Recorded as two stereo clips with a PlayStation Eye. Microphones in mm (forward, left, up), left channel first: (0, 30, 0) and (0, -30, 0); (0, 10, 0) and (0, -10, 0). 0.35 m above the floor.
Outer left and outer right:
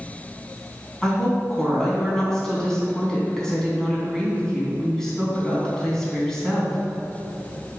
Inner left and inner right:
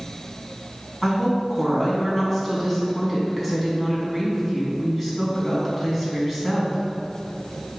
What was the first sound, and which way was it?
A woman speaking, 10° left (ahead or behind).